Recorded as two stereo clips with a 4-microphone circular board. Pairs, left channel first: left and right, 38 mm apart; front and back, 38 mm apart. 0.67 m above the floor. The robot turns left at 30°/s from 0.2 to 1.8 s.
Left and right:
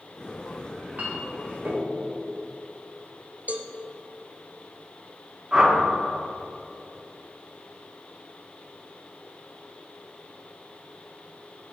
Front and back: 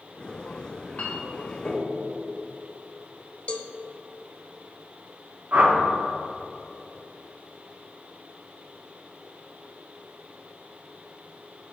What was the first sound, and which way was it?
A clink, 35° right.